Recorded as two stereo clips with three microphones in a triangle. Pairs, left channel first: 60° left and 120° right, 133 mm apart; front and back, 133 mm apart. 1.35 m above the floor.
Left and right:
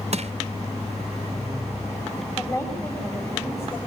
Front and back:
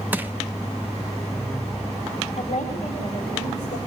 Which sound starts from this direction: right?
Crushing, at 0.1 s.